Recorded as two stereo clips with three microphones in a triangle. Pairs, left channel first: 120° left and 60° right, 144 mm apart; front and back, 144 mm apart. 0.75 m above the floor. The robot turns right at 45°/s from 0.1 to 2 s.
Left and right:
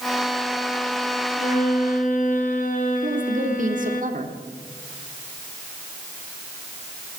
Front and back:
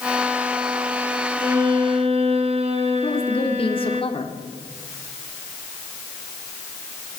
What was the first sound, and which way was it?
A violin, 110° left.